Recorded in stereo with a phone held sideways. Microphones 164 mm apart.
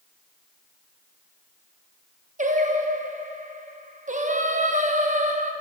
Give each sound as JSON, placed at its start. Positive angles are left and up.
{"t": 2.4, "sound": "singing", "side_deg": -50, "distance_m": 0.8}